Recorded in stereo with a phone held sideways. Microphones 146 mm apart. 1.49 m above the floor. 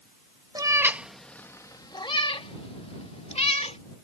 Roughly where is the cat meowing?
Right.